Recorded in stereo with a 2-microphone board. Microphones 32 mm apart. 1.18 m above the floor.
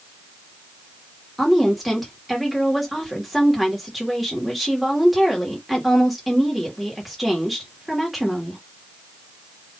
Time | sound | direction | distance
1.4 | a woman speaking | centre (ahead or behind) | 2 m